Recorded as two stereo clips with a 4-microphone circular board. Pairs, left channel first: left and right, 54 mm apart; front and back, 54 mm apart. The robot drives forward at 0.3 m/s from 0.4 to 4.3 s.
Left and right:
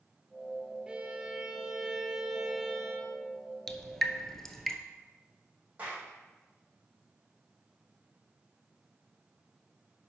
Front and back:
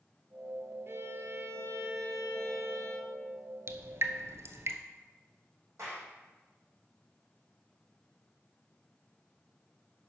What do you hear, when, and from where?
0.9 s a violin: 160° right, 0.9 m; by 3.2 s 170° right, 1.6 m
3.7 s dripping: 170° left, 0.7 m; by 4.8 s 175° left, 0.8 m
5.8 s a clap: 150° right, 4.5 m